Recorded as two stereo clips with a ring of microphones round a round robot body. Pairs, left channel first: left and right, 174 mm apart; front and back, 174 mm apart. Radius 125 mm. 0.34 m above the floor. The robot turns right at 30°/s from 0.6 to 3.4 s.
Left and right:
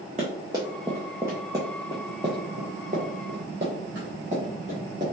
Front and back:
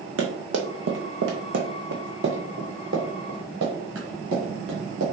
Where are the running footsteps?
155° right, 1.1 m.